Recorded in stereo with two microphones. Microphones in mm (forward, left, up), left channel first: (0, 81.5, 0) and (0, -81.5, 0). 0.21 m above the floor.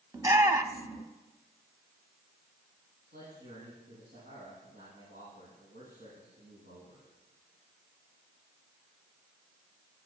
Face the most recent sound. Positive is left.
turn(degrees=-75)  # may be behind; listen again after turning